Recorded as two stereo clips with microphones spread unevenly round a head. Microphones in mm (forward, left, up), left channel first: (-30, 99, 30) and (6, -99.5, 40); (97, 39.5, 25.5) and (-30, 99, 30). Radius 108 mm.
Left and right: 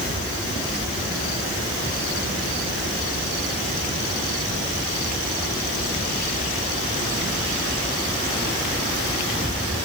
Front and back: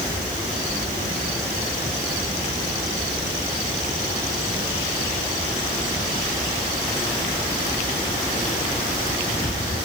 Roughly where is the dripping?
I don't hear dripping.